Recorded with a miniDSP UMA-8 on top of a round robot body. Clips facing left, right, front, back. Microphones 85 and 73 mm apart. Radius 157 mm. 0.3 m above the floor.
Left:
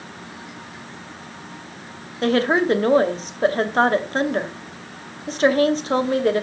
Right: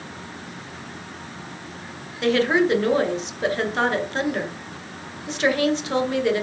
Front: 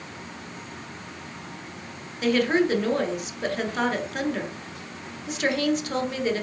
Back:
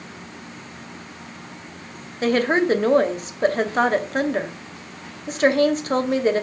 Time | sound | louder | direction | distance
2.2 | a woman speaking | left 1 dB, back 3 dB | 135° left | 2 m